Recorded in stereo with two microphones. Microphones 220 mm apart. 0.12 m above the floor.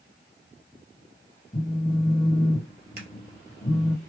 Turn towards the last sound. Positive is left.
turn(degrees=-45)  # may be behind; listen again after turning